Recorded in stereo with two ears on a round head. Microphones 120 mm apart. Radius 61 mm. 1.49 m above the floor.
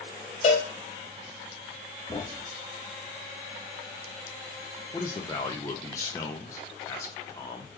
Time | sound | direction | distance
0.4 | a cowbell | 45° left (ahead or behind) | 2 m
2.1 | a thud | 30° left (ahead or behind) | 0.8 m
4.9 | a man speaking | 20° left (ahead or behind) | 1.0 m